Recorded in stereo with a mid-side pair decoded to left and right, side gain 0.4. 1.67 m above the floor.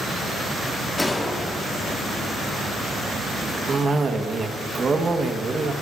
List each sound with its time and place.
1.0 s a gunshot: 15° left, 2.5 m
3.7 s a cough: 40° right, 2 m